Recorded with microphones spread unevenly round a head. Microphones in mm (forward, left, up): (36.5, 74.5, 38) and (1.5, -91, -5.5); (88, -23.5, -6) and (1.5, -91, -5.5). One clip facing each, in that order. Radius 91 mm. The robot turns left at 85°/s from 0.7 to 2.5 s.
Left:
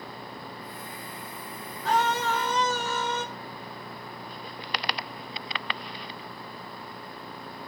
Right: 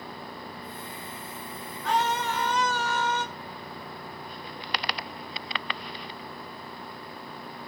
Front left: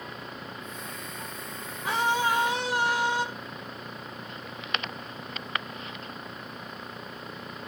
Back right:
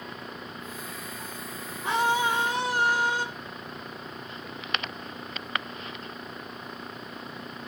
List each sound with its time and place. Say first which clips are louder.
1.8 s a scream: left 1 dB, back right 1 dB; 145° left, 2 m; by 3.2 s 85° left, 2 m